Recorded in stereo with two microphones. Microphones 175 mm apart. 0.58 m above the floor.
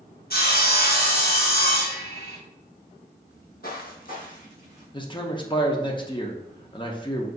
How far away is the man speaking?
About 0.7 m.